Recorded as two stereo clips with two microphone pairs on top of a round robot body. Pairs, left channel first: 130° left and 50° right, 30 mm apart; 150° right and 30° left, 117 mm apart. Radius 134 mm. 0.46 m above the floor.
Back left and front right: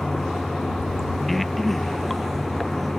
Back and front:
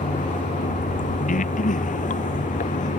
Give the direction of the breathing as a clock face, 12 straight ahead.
5 o'clock.